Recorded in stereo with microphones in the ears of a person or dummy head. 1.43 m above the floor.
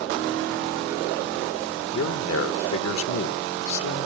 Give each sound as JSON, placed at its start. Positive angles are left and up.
{"t": 1.9, "sound": "a man speaking", "side_deg": 75, "distance_m": 1.7}